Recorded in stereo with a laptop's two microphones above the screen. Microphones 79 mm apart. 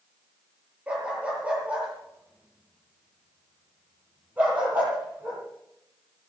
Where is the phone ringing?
No phone ringing in this recording.